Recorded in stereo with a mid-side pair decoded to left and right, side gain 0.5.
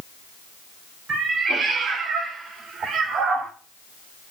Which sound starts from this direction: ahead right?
A cat meowing, at 1.1 s.